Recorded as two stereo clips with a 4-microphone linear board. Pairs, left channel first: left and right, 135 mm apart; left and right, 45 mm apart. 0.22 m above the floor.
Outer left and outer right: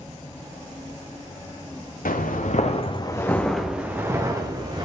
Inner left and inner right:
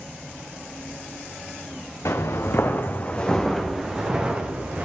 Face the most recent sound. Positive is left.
turn(degrees=-30)  # may be behind; listen again after turning